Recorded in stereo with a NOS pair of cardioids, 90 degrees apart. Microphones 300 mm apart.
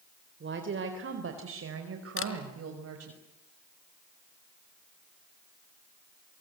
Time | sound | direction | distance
0.4 | a woman speaking | 40° right | 4 m
2.2 | a camera shutter | 45° left | 3.5 m